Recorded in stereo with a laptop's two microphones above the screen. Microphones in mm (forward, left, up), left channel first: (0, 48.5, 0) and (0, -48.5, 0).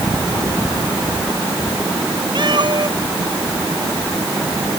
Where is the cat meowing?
55° right (ahead or behind).